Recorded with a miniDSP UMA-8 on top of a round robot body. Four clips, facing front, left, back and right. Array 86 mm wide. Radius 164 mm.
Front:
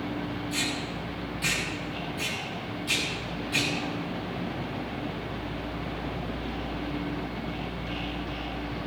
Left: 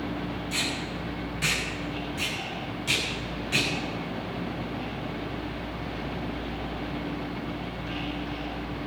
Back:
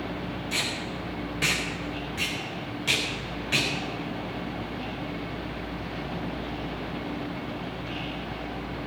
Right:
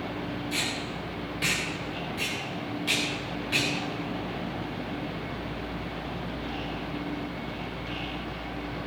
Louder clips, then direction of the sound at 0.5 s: Left 1 dB, even; 170° right.